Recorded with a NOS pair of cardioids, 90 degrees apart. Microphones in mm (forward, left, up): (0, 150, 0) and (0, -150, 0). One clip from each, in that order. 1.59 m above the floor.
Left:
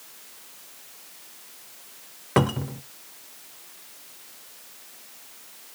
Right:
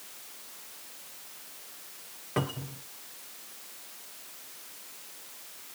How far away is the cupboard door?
About 0.7 m.